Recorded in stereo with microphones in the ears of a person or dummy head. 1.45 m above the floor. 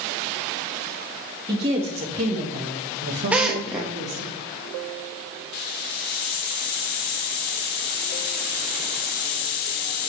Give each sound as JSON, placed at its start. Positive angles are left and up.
{"t": 1.5, "sound": "a woman speaking", "side_deg": -30, "distance_m": 3.0}
{"t": 3.3, "sound": "a drill", "side_deg": -5, "distance_m": 0.9}
{"t": 5.5, "sound": "a hiss", "side_deg": 45, "distance_m": 0.7}